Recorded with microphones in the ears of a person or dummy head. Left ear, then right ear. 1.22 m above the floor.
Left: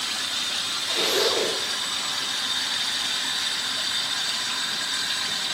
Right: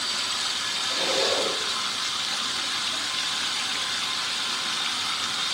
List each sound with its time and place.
0.9 s a zipper: 30° left (ahead or behind), 2.0 m